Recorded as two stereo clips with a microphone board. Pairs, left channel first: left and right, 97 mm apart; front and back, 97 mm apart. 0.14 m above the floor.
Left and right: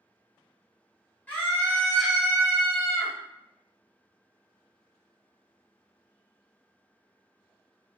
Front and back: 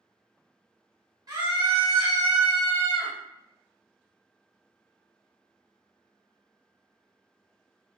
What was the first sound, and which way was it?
A scream, 150° left.